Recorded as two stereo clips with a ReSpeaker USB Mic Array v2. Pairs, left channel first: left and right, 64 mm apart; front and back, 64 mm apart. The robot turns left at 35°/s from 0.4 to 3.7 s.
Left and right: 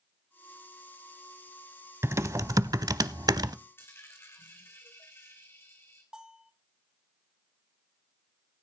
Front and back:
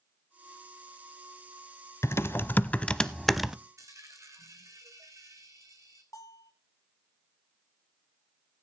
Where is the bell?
15° right, 2.5 m.